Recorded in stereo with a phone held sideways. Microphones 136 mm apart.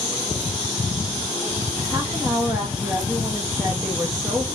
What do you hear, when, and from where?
1.9 s a woman speaking: 20° right (ahead or behind), 1.3 m